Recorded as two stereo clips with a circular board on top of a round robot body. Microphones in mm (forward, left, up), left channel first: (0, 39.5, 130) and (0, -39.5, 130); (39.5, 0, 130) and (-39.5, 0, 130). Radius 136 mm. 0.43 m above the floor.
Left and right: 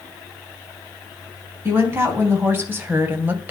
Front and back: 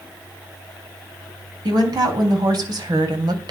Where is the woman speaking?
150° right, 4.5 m; by 3.5 s 155° right, 2.5 m.